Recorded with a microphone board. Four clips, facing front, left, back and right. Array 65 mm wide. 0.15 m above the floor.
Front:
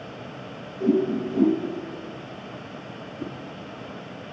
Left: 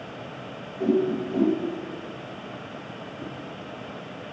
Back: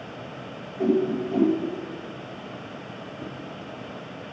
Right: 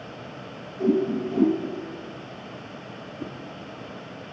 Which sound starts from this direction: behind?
A whoosh, at 0.8 s.